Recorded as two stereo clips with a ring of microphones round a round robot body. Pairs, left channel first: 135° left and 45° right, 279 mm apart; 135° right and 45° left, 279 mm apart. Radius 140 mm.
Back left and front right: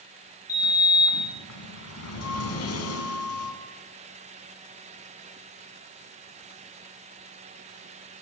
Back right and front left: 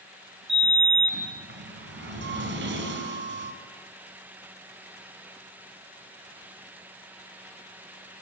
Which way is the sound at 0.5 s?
95° left.